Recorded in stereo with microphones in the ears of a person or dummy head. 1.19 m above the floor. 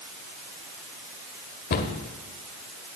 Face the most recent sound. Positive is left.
turn(degrees=60)  # may be behind; listen again after turning